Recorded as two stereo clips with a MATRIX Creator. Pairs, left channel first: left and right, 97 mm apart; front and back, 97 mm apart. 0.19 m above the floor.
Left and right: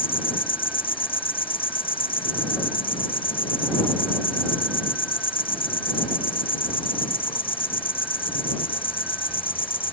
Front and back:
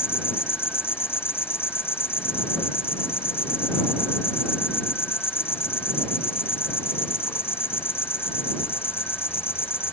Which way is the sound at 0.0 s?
65° left.